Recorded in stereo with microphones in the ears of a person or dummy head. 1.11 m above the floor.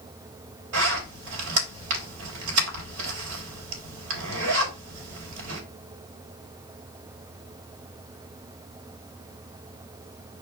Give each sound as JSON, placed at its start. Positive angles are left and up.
{"t": 0.7, "sound": "a zipper", "side_deg": -85, "distance_m": 5.5}